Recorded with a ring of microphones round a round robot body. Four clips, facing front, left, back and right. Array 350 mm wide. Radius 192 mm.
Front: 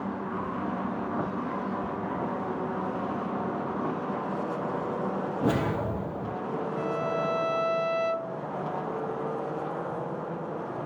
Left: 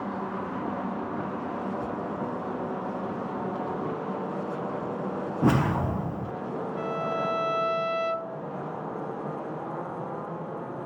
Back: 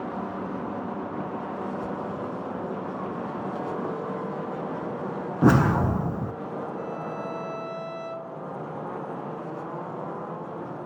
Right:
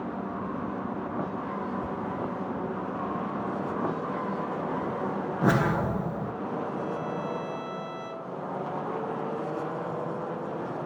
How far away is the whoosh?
About 1.1 m.